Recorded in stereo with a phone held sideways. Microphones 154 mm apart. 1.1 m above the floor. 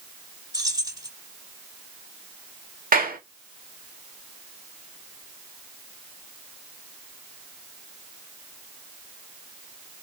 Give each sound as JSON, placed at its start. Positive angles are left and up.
{"t": 0.5, "sound": "keys jangling", "side_deg": -25, "distance_m": 4.0}
{"t": 2.9, "sound": "a clap", "side_deg": -70, "distance_m": 2.0}